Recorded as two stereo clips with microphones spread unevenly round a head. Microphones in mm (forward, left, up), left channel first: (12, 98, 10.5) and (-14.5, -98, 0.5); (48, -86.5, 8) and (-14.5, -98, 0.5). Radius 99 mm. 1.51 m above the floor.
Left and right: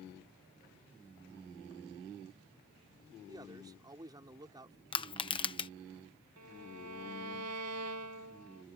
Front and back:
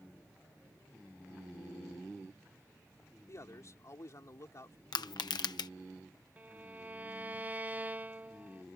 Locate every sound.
3.3 s a man speaking: 25° right
4.9 s crushing: 15° left
6.4 s a violin: 105° right